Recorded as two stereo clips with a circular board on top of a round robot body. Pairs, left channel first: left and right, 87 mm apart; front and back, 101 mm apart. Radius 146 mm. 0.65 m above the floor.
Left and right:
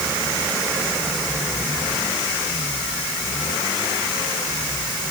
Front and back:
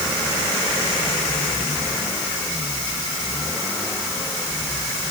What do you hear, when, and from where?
Only background noise.